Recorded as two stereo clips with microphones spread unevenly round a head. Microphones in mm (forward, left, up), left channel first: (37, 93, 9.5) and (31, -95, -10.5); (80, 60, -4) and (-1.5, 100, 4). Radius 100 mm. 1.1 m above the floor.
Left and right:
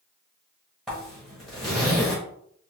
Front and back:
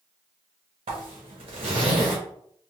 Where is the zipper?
Straight behind, 1.0 m.